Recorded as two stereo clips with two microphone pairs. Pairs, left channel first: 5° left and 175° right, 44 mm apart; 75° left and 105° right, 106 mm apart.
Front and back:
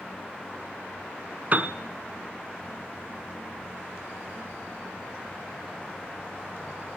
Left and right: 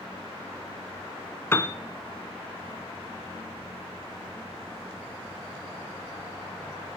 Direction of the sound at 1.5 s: 140° left.